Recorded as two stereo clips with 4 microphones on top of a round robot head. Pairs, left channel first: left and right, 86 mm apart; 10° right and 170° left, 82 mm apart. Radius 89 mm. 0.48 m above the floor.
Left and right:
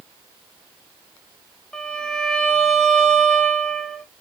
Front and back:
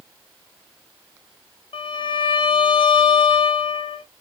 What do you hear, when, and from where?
1.7 s a violin: 5° left, 0.6 m